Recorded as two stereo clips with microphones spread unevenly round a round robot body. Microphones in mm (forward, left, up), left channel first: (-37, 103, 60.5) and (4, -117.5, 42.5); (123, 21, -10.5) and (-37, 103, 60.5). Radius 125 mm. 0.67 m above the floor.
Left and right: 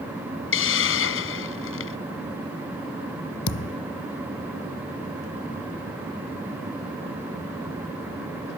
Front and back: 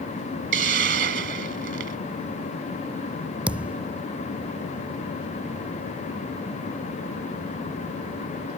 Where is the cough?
I don't hear a cough.